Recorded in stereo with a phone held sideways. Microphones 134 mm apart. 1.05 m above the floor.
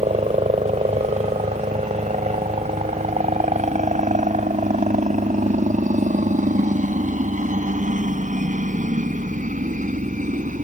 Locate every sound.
0.0 s a helicopter: 55° right (ahead or behind); by 10.6 s 70° right (ahead or behind)